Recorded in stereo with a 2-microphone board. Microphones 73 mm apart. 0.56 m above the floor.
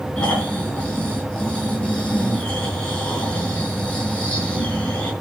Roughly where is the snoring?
Left.